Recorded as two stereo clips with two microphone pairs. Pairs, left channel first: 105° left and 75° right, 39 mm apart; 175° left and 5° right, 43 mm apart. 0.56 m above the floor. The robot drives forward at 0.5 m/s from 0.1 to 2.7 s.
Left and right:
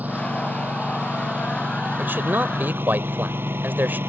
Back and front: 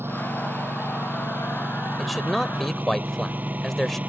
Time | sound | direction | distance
0.0 | a lawn mower | 30° right | ?
2.0 | a man speaking | 95° right | ?